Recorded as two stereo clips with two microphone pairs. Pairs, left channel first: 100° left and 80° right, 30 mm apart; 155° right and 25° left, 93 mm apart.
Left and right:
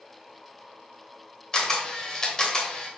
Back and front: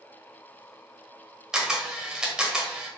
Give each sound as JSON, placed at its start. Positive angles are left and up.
{"t": 1.5, "sound": "a camera shutter", "azimuth_deg": 85, "distance_m": 0.9}